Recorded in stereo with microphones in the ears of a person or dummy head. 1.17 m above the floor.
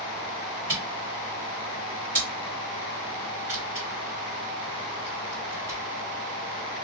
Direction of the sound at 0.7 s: 35° right (ahead or behind).